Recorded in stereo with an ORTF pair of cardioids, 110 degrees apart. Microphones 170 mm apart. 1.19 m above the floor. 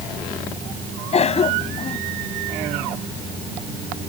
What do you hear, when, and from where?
1.1 s a cough: 40° left